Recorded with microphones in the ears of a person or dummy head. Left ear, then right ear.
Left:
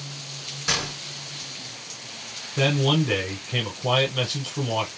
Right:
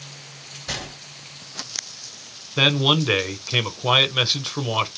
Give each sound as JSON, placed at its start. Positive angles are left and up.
{"t": 0.7, "sound": "a gunshot", "side_deg": 60, "distance_m": 2.5}
{"t": 2.6, "sound": "a man speaking", "side_deg": -45, "distance_m": 0.9}